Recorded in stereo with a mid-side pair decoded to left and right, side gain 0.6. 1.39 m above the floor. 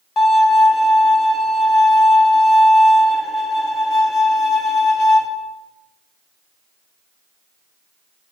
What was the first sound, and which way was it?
A violin, 40° left.